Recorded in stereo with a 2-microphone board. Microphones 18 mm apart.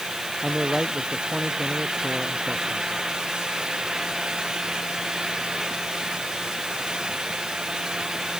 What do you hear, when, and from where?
0.4 s a man speaking: 15° right (ahead or behind)